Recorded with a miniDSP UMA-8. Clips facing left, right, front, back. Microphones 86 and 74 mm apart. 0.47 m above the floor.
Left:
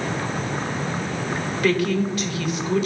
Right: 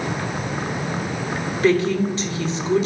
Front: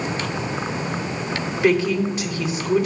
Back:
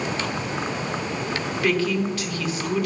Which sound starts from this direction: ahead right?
A woman speaking, at 1.6 s.